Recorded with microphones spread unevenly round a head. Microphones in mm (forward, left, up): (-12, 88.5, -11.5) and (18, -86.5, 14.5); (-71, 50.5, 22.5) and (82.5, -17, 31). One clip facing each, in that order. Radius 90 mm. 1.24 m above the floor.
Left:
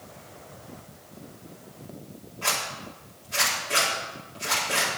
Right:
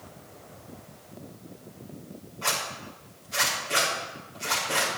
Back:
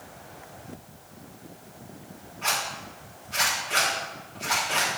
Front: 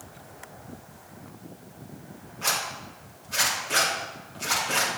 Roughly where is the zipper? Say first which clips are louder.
Left 1 dB, back 1 dB; ahead.